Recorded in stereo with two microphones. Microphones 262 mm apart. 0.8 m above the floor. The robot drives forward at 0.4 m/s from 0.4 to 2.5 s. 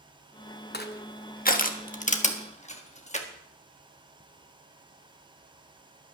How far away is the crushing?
About 0.9 m.